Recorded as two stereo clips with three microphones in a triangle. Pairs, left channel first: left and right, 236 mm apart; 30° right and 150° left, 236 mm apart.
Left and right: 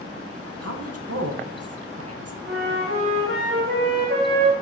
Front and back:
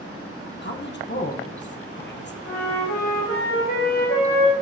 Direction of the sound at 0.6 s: 75° right.